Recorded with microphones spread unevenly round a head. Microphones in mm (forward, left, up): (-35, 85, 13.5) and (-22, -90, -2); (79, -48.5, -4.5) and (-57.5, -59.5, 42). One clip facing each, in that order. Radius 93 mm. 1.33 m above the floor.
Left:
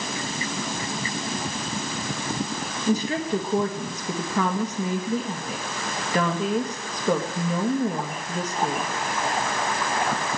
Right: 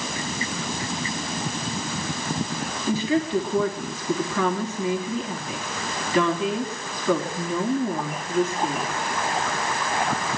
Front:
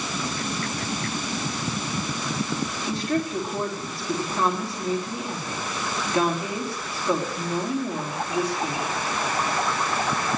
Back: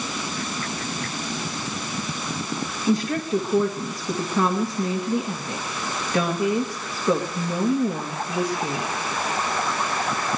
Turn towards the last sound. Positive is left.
turn(degrees=145)